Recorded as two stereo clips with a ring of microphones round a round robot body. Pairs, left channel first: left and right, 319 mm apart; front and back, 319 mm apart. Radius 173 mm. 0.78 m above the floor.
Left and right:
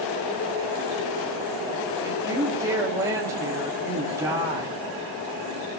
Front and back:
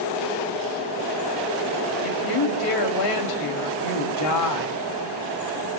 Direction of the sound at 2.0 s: 10° right.